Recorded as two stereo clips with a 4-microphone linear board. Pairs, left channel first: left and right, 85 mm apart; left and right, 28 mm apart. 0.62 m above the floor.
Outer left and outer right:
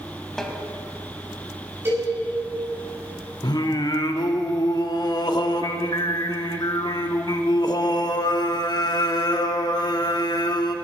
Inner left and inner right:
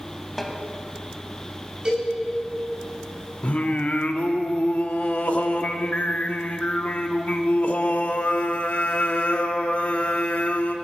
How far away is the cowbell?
About 3.5 m.